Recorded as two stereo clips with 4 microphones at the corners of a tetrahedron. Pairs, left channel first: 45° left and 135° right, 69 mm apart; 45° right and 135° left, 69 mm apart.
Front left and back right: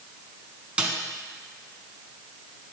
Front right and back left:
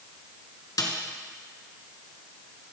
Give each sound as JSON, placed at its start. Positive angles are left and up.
{"t": 0.8, "sound": "a snare drum", "azimuth_deg": -60, "distance_m": 1.1}